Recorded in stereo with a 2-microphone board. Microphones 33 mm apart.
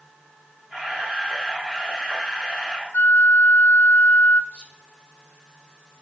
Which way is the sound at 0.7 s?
20° right (ahead or behind).